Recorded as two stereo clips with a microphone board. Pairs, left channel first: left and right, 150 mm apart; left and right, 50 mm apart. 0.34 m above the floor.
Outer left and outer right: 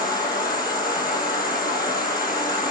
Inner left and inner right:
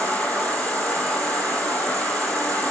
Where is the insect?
25° left (ahead or behind), 6.5 m.